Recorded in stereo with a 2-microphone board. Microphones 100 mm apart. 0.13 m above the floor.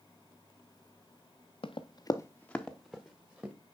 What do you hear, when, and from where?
1.6 s running footsteps: 70° left (ahead or behind), 0.8 m; by 3.5 s 15° right (ahead or behind), 1.7 m